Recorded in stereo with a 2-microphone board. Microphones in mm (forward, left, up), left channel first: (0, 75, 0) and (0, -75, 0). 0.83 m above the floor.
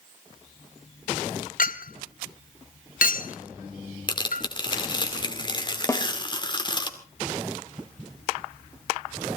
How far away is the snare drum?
About 1.7 m.